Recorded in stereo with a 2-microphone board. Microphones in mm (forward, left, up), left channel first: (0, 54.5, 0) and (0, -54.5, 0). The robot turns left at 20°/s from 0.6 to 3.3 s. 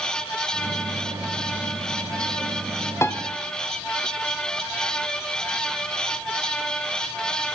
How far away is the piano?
About 1.0 m.